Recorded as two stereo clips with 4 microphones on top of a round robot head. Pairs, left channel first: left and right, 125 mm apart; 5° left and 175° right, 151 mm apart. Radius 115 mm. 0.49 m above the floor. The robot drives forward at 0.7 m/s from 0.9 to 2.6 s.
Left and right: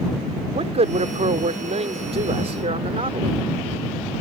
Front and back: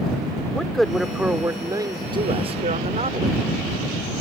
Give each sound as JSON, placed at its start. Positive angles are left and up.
{"t": 0.5, "sound": "a man speaking", "azimuth_deg": -85}